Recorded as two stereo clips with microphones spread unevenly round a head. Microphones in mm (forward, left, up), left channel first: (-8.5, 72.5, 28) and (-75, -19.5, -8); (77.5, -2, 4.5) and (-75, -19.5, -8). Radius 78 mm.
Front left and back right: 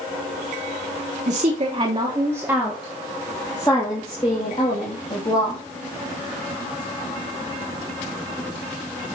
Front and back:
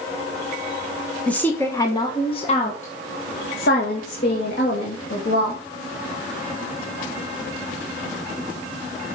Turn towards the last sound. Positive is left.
turn(degrees=10)